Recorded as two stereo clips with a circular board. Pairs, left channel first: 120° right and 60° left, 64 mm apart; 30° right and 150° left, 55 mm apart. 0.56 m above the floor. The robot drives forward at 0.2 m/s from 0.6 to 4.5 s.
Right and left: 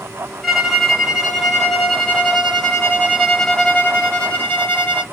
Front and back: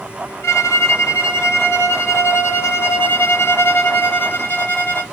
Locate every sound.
0.4 s a violin: 35° right, 1.5 m; by 5.0 s 65° right, 1.1 m